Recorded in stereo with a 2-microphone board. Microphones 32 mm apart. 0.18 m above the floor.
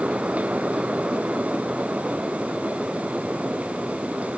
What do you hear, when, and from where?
Only background noise.